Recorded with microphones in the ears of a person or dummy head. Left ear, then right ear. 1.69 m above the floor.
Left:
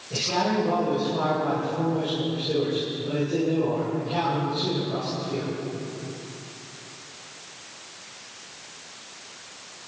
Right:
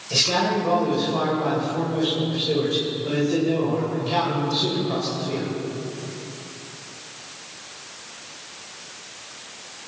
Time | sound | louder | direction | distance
0.1 | a man speaking | right 4 dB | 70° right (ahead or behind) | 10 m